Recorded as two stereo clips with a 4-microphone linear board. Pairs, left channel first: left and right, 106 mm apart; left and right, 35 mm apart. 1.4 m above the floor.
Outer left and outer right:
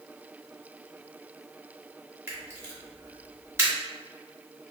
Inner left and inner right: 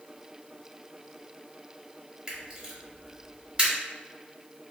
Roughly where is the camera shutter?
Right.